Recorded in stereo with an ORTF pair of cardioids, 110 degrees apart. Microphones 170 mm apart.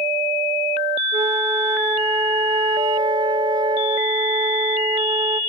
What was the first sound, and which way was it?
A flute, 25° right.